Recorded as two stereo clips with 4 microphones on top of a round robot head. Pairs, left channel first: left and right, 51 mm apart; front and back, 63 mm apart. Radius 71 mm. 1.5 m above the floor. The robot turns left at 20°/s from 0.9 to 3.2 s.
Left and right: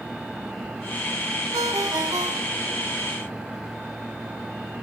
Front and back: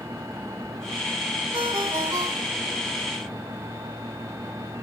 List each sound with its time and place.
1.5 s a ringtone: 110° right, 1.9 m; by 2.9 s 135° right, 1.9 m